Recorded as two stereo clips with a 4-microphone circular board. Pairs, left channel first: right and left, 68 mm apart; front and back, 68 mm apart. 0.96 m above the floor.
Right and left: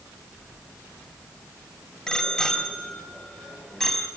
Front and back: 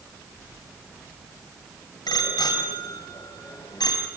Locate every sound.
2.1 s a bicycle bell: 10° right, 3.5 m; by 4.1 s 5° right, 5 m